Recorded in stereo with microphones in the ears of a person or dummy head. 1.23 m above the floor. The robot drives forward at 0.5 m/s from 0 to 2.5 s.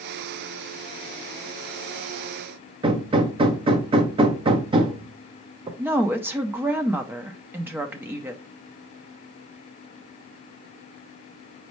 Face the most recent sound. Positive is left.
turn(degrees=-10)  # may be behind; listen again after turning